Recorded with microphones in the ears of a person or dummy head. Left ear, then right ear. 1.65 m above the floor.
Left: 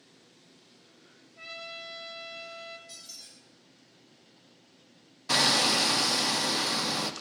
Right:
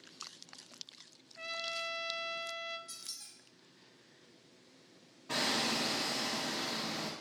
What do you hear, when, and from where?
1.4 s a trumpet: 25° right (ahead or behind), 0.8 m
2.9 s a squeak: 45° right (ahead or behind), 1.7 m
5.3 s hammering: 70° left (ahead or behind), 0.6 m